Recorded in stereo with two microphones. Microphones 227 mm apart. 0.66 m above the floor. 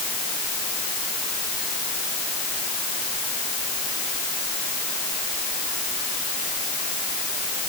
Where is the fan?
I don't hear a fan.